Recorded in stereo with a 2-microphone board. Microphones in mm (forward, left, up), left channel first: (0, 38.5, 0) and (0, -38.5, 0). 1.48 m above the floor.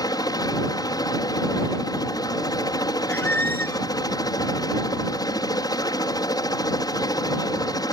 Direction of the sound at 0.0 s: 55° left (ahead or behind).